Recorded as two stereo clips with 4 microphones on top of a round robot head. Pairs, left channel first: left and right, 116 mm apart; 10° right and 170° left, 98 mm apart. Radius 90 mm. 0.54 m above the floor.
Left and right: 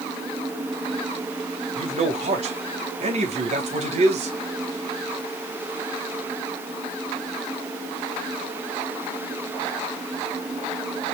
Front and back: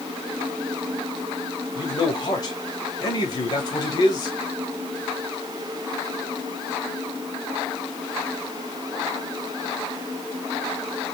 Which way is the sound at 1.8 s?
60° right.